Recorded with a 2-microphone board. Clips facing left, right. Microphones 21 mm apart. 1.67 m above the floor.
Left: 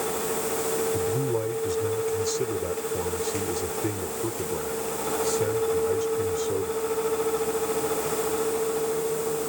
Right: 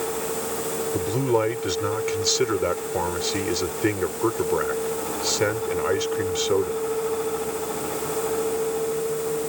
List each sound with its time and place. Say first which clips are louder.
0.9 s a man speaking: right 4 dB; 50° right (ahead or behind)